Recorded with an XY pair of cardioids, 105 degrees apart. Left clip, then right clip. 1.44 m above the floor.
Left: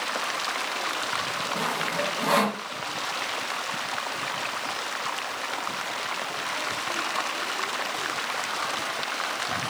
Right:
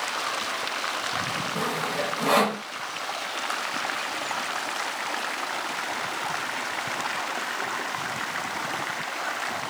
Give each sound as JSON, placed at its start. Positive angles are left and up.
{"t": 1.6, "sound": "sawing", "azimuth_deg": -15, "distance_m": 1.7}